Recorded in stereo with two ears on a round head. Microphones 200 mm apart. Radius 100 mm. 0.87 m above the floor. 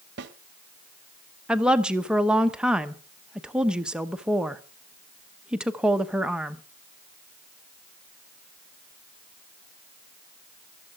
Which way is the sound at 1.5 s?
5° right (ahead or behind).